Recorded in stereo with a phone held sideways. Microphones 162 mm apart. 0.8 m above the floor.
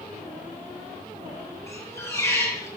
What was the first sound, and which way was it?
A squeak, 20° left (ahead or behind).